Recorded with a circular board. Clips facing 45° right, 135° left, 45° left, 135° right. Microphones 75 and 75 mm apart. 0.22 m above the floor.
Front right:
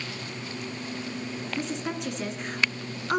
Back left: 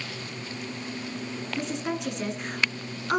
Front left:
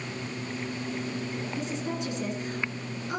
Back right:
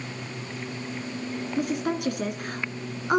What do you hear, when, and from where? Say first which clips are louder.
1.6 s a woman speaking: back left 2 dB, back right 8 dB; 135° right, 2 m